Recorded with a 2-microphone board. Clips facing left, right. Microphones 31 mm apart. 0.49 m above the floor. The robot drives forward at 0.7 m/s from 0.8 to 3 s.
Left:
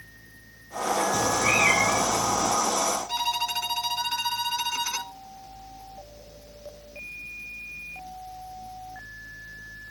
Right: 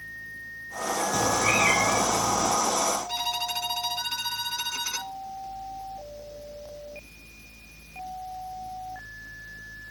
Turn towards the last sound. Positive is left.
turn(degrees=25)  # may be behind; listen again after turning